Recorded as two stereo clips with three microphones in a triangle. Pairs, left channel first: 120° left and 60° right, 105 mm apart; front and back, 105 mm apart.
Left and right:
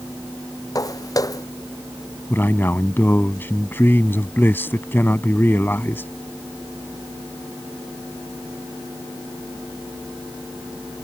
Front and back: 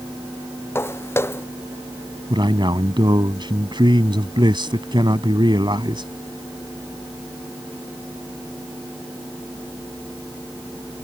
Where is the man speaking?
Straight behind.